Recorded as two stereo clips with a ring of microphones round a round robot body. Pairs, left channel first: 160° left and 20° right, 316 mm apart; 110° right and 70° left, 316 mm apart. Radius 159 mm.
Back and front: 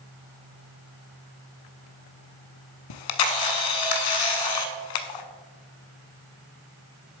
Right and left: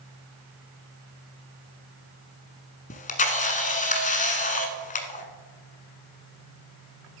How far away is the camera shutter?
About 0.9 m.